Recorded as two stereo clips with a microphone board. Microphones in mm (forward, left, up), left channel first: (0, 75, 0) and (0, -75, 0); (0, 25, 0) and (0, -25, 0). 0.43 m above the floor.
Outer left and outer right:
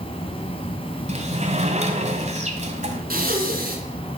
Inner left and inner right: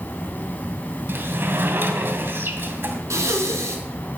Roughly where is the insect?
Left.